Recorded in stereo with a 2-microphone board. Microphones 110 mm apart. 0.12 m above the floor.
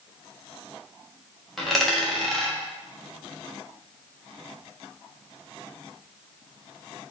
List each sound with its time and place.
1.6 s a dropped coin: centre (ahead or behind), 3.5 m